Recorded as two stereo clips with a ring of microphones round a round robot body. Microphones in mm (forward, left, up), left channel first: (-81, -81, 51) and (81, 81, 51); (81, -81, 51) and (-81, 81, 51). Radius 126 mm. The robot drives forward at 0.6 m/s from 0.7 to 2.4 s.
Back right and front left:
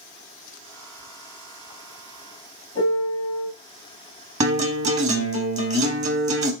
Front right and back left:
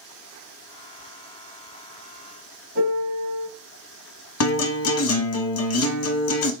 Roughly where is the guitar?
Ahead.